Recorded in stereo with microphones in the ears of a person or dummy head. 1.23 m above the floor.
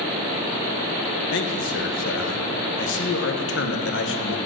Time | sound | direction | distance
1.3 | a man speaking | 65° left (ahead or behind) | 1.5 m